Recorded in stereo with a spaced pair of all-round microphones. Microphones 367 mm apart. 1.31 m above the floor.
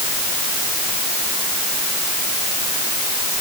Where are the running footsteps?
No running footsteps in this recording.